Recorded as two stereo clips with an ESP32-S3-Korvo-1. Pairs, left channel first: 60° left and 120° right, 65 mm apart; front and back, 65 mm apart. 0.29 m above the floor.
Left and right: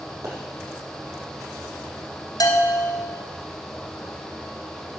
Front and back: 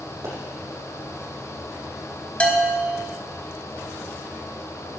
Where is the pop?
150° right, 4.5 m.